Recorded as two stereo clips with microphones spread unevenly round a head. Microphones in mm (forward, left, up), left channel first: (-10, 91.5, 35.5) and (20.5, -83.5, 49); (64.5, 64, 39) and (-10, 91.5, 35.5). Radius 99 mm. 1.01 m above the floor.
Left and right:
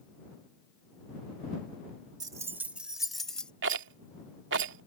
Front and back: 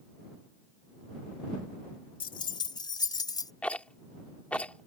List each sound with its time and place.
2.2 s keys jangling: 10° right; by 3.5 s 15° left
3.6 s a rattle: 100° right